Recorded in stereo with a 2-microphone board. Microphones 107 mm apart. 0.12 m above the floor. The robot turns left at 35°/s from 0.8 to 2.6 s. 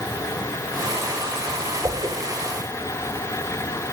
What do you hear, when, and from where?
1.8 s a whoosh: 35° right (ahead or behind), 6 m; by 2.2 s 45° right (ahead or behind), 6 m